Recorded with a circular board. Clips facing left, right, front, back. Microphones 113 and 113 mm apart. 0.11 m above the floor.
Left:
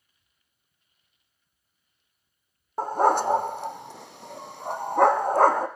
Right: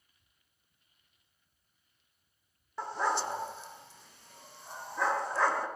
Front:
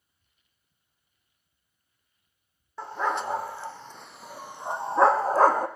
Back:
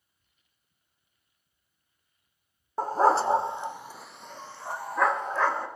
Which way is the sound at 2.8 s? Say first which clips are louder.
Left 10 dB, back 7 dB; 135° left.